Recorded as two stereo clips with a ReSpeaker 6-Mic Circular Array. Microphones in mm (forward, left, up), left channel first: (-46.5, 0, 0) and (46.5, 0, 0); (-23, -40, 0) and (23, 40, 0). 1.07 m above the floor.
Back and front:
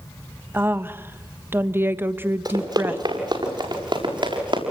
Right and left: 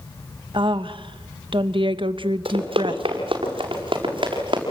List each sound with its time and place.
0.5 s a woman speaking: 65° left, 1.3 m
2.5 s running footsteps: 40° left, 7 m; by 4.6 s 30° left, 8.5 m